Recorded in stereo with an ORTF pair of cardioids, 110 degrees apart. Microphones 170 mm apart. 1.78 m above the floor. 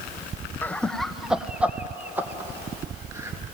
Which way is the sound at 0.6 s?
10° left.